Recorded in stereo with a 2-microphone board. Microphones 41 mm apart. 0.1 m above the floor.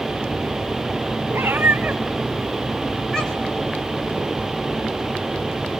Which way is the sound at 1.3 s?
60° right (ahead or behind).